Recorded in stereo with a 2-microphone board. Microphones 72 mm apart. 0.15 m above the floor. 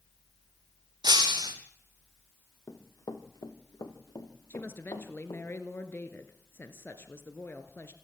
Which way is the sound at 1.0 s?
75° right (ahead or behind).